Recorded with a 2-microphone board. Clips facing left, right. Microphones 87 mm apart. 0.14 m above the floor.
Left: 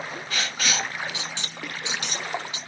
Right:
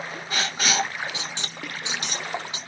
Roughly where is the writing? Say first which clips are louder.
Right 3 dB; right.